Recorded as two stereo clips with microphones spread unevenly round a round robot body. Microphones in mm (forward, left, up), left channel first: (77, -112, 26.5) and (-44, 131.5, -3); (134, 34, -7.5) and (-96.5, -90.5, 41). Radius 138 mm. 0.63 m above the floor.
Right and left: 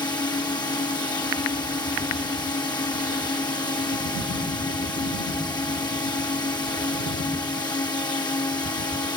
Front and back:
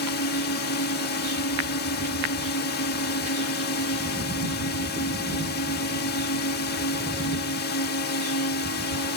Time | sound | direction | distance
0.0 | a drone | 15° left | ?